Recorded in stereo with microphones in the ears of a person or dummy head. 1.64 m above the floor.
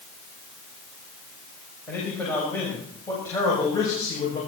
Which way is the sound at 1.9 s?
10° left (ahead or behind).